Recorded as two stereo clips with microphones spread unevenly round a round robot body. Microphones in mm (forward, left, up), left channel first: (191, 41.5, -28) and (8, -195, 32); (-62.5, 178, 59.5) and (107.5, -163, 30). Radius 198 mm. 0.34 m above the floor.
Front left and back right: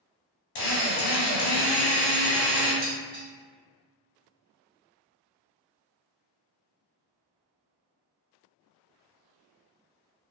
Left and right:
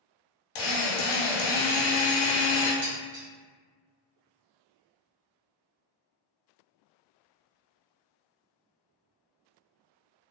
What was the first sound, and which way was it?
A drill, 65° left.